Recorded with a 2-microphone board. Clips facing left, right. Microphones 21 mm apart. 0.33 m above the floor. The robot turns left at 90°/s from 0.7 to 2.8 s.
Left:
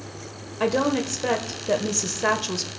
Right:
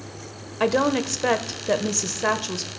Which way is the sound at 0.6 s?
20° right (ahead or behind).